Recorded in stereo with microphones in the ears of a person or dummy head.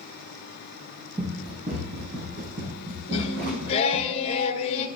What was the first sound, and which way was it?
Running footsteps, 25° right (ahead or behind).